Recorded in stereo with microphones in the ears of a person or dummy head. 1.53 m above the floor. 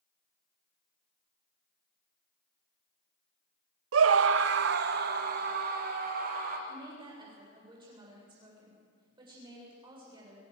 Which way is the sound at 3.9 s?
85° right.